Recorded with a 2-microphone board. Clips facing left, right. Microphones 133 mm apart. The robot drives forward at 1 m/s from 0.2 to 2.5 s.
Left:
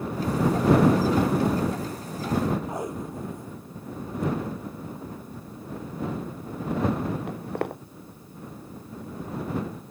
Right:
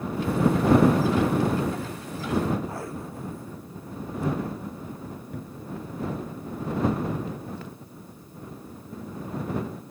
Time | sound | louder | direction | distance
2.7 | tape being pulled | left 3 dB | 20° left (ahead or behind) | ?
5.3 | a cupboard door | right 1 dB | 70° right (ahead or behind) | ?
7.3 | footsteps | left 6 dB | 65° left (ahead or behind) | ?